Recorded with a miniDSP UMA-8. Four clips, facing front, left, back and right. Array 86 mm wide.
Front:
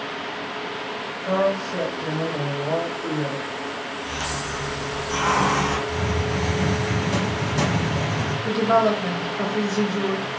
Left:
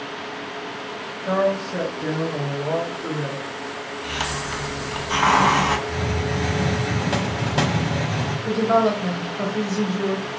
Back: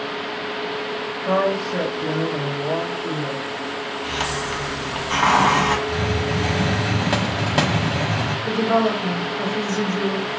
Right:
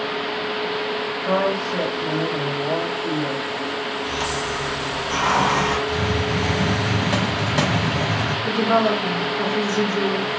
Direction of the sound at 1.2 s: 145° right.